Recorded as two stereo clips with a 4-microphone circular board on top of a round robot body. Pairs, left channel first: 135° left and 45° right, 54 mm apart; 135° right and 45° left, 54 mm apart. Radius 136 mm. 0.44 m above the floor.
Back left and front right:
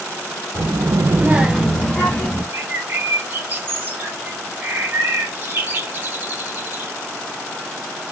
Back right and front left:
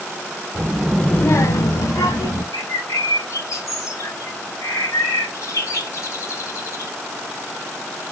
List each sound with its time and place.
0.6 s a child speaking: 15° right, 0.9 m; by 2.4 s 155° right, 1.8 m
2.5 s a bird: 105° right, 0.8 m